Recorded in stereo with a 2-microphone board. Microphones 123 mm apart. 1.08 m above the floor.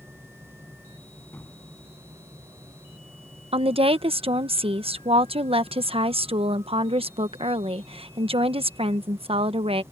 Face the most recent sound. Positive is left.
turn(degrees=-50)  # may be behind; listen again after turning